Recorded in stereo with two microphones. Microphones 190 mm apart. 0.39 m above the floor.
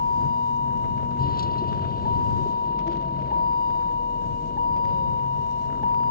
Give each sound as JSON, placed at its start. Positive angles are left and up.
{"t": 0.0, "sound": "a vehicle", "side_deg": 50}